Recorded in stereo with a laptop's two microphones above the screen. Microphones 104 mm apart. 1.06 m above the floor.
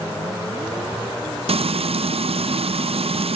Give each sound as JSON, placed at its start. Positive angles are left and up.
{"t": 1.5, "sound": "frying", "side_deg": -70, "distance_m": 0.5}